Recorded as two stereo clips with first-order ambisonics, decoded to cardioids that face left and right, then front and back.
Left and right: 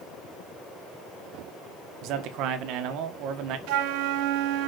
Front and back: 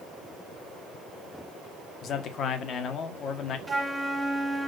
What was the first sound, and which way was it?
A man speaking, 55° right.